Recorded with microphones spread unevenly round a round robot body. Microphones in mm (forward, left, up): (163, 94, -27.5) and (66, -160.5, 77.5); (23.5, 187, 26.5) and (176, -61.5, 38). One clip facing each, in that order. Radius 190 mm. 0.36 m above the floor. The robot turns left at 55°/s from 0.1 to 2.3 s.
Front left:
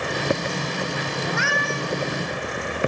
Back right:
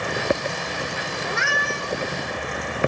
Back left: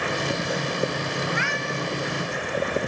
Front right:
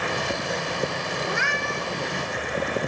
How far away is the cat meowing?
About 3.5 m.